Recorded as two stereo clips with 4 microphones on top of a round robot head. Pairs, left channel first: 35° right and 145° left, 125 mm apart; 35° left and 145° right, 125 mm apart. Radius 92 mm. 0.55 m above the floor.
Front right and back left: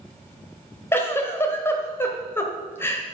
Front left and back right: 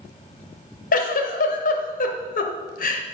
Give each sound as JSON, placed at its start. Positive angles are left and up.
{"t": 0.9, "sound": "a giggle", "azimuth_deg": 35, "distance_m": 1.1}